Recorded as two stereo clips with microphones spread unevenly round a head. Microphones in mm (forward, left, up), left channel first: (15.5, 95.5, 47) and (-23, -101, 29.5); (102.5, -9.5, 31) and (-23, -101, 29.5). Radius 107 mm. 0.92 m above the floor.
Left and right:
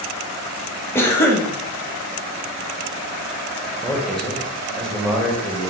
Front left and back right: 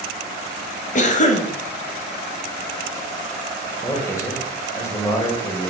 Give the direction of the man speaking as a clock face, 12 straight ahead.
1 o'clock.